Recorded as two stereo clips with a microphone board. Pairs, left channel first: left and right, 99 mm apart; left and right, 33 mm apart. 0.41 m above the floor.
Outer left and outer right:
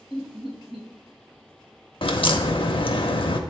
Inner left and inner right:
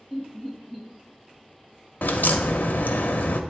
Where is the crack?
65° left (ahead or behind), 0.5 m.